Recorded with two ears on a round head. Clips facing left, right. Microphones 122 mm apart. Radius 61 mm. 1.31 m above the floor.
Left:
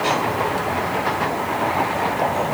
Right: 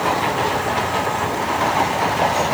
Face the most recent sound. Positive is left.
No sound to turn to.